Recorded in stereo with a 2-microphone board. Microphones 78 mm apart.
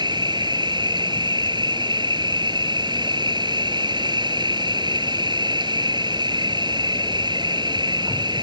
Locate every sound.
0.0 s an insect: 75° right (ahead or behind)